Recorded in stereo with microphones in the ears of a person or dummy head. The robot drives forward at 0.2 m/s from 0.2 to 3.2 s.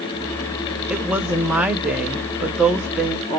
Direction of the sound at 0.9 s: 10° right (ahead or behind).